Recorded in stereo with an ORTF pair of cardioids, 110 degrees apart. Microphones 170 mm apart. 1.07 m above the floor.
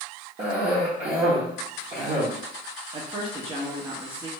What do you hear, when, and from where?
0.4 s a cough: 40° right, 1.2 m
2.9 s a woman speaking: 35° right, 0.9 m